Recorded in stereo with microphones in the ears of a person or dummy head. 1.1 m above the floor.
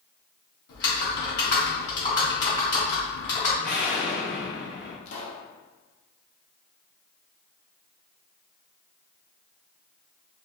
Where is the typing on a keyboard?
50° left (ahead or behind), 1.7 m.